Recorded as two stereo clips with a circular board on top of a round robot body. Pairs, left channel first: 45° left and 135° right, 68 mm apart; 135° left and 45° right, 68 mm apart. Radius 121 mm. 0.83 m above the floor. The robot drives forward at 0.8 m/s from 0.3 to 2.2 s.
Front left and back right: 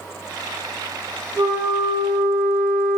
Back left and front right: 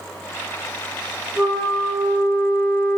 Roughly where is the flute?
Behind right.